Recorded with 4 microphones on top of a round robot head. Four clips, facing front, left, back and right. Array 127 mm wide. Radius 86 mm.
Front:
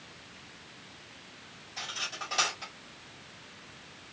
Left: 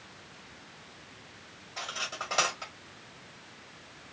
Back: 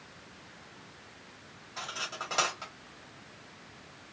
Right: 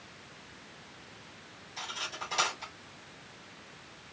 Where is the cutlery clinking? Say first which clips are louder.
Left 2 dB, back 1 dB; 135° left, 3.5 m.